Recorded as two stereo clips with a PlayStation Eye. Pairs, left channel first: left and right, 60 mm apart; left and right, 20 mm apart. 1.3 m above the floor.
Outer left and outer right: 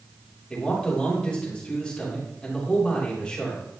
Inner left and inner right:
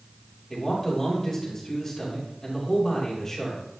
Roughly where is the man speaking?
Centre.